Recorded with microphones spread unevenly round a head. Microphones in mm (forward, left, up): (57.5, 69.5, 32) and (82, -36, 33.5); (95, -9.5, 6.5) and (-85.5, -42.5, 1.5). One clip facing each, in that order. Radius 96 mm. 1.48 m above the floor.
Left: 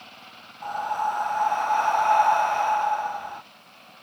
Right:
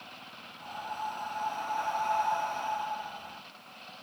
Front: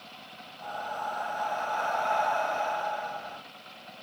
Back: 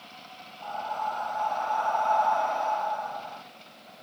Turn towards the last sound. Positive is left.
turn(degrees=80)